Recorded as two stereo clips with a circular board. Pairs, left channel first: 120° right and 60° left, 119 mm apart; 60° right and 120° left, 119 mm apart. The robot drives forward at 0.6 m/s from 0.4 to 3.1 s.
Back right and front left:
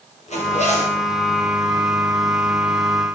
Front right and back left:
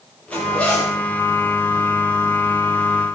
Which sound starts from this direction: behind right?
A zipper, at 0.3 s.